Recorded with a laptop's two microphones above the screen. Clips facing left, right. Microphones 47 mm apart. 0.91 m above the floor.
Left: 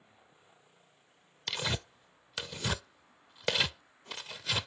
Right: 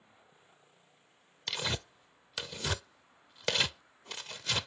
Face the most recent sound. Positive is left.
turn(degrees=5)  # may be behind; listen again after turning